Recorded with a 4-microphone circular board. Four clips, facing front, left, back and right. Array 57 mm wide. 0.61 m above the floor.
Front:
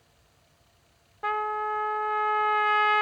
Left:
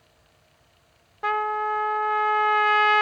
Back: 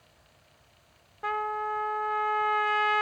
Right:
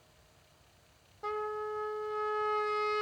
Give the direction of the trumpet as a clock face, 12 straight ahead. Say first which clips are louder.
Left 11 dB, front 2 dB; 9 o'clock.